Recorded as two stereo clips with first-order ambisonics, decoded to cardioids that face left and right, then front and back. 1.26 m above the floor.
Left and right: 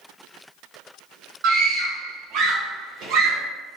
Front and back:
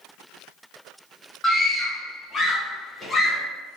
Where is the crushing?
No crushing in this recording.